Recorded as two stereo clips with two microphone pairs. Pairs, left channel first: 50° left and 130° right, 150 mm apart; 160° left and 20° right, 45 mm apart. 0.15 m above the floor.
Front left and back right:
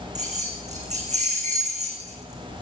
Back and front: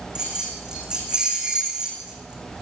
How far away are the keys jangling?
About 8.5 m.